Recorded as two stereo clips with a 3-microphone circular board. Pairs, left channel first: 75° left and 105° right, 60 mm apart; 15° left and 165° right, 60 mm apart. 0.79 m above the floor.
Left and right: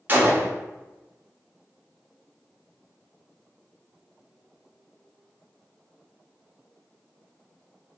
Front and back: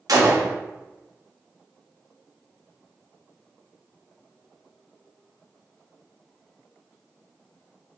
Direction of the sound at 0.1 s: 165° right.